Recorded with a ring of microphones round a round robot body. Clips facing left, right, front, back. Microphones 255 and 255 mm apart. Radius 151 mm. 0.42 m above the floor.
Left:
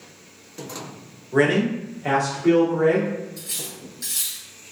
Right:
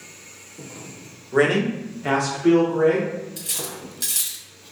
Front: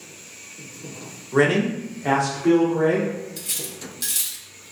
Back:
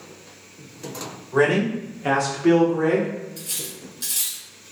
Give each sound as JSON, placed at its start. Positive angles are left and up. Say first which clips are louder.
{"t": 1.3, "sound": "a man speaking", "louder": "even, even", "azimuth_deg": -5, "distance_m": 0.9}
{"t": 3.4, "sound": "cutlery clinking", "louder": "right 3 dB, front 1 dB", "azimuth_deg": -55, "distance_m": 0.7}